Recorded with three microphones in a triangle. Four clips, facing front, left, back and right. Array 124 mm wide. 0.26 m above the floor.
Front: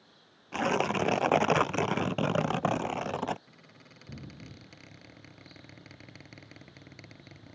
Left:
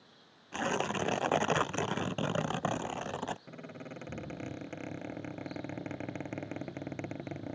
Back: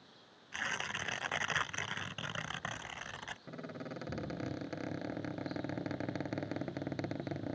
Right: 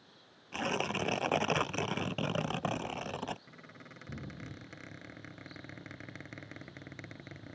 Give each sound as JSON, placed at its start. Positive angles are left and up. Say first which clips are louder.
{"t": 0.5, "sound": "tearing paper", "louder": "left 2 dB, front 13 dB", "azimuth_deg": 10}
{"t": 3.5, "sound": "a squeak", "louder": "left 8 dB, back 12 dB", "azimuth_deg": 140}